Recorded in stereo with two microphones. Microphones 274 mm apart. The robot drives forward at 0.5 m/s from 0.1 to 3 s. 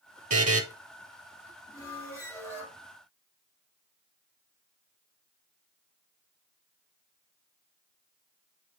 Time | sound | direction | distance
0.3 | a buzzer | 70° right (ahead or behind) | 0.9 m
1.7 | a squeak | 10° left (ahead or behind) | 2.5 m